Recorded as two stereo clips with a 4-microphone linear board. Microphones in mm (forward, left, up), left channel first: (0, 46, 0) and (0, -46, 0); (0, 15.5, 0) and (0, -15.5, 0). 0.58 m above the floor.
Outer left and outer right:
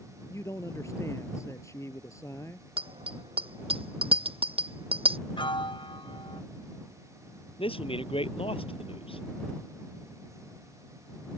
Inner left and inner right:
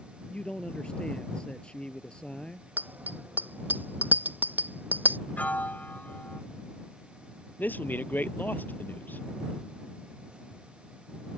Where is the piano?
65° left (ahead or behind).